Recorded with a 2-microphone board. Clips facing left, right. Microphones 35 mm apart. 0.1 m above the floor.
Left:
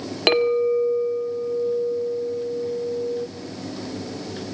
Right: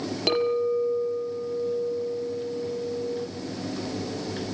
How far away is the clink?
About 1.7 m.